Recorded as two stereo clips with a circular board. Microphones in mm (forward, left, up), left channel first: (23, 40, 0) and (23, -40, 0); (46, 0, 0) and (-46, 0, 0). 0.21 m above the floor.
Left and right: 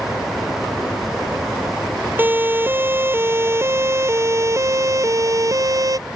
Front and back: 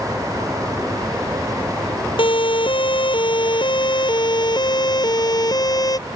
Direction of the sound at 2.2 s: 25° right.